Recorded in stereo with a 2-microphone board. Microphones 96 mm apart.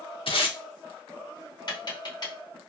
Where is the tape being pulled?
65° left (ahead or behind), 0.7 m.